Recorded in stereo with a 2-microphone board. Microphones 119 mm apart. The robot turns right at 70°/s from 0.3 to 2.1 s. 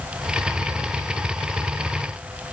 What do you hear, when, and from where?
Only background noise.